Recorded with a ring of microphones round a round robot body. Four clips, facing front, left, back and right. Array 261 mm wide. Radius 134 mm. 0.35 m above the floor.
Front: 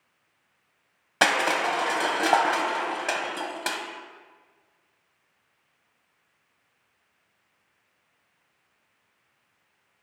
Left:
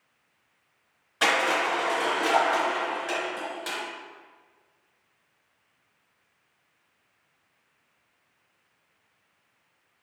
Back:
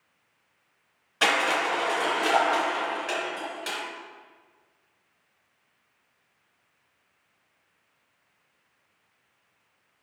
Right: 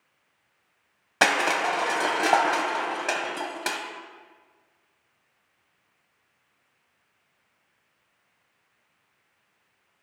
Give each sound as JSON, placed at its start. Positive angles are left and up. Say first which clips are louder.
{"t": 1.2, "sound": "crushing", "louder": "right 1 dB, front 1 dB", "azimuth_deg": -50, "distance_m": 1.1}